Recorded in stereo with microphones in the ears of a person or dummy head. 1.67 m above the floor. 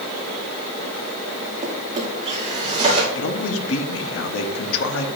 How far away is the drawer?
About 2.5 m.